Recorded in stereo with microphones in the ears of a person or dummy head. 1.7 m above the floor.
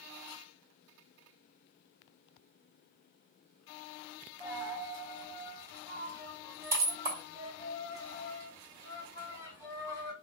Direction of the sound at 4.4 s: 15° right (ahead or behind).